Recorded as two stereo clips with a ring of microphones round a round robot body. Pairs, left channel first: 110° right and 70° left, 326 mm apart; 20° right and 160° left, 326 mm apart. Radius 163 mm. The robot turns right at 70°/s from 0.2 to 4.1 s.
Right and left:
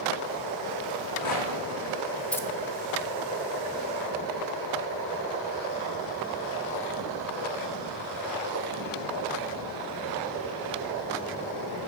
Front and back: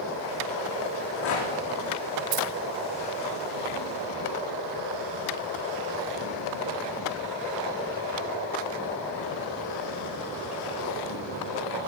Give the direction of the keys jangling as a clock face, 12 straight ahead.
7 o'clock.